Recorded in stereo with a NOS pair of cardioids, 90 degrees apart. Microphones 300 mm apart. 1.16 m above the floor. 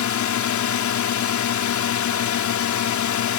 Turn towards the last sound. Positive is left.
turn(degrees=65)